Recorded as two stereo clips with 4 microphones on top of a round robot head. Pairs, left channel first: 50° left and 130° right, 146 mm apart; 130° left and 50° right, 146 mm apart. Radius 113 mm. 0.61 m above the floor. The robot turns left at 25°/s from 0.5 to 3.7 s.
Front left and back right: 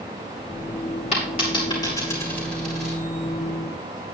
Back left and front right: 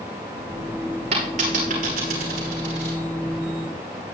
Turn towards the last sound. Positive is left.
turn(degrees=-65)